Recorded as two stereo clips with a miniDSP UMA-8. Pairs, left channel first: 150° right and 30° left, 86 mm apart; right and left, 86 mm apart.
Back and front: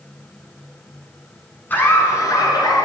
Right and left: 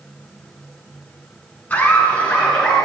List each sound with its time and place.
1.7 s laughter: 130° right, 1.1 m; by 2.9 s 170° right, 1.8 m